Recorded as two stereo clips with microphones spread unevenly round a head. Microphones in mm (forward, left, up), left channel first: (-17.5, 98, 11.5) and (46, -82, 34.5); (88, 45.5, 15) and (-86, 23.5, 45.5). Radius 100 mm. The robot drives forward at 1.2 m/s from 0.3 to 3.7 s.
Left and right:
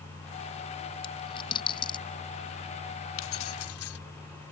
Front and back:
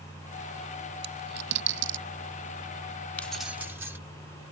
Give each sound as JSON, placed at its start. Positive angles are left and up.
{"t": 1.0, "sound": "a dropped coin", "azimuth_deg": 180}
{"t": 3.2, "sound": "keys jangling", "azimuth_deg": 90}